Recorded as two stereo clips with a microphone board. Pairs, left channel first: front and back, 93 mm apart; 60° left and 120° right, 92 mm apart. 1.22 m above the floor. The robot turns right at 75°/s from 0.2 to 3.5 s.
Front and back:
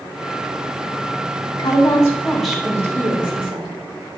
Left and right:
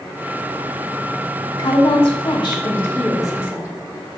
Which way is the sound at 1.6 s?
25° left.